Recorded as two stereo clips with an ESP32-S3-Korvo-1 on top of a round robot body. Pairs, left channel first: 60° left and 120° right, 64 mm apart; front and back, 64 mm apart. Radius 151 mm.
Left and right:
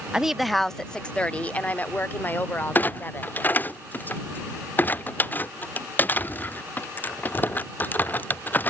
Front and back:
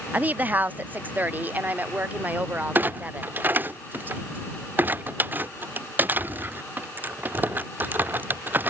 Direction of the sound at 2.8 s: 120° left.